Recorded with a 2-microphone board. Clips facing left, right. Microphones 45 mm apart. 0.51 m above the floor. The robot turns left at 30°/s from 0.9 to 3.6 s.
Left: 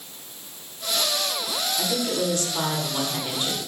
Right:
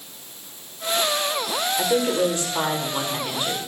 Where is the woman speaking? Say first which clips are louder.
Right 6 dB; 125° right, 1.9 m; by 3.6 s straight behind, 1.9 m.